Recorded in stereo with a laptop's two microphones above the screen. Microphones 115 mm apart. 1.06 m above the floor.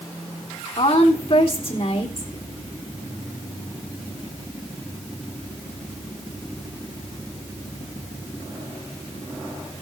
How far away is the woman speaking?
About 3.5 m.